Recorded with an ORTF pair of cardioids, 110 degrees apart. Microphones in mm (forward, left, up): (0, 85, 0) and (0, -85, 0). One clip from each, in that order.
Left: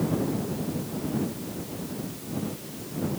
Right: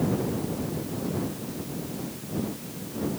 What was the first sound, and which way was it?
Only background noise.